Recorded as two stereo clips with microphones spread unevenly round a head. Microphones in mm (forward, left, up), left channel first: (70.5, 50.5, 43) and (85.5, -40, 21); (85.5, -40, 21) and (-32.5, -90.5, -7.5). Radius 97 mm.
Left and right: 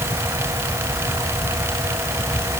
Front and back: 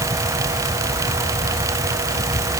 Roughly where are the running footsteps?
No running footsteps in this recording.